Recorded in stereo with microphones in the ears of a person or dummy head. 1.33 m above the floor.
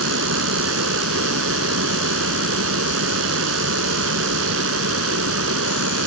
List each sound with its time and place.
0.0 s a fan: 70° right (ahead or behind)